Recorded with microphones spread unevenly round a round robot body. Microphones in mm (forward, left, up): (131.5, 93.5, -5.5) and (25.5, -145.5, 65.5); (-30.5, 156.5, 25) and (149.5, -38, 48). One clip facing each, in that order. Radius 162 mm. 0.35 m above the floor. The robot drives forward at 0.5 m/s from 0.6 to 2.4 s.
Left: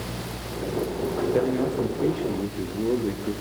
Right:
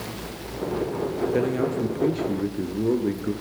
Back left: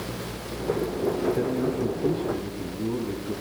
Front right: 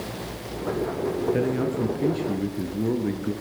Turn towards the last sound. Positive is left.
turn(degrees=-35)